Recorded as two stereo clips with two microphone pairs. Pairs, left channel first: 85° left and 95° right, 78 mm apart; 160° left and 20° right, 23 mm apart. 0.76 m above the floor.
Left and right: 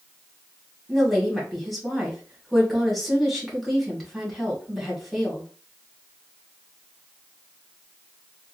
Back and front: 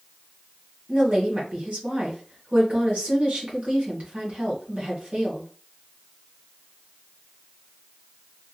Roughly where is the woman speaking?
Ahead.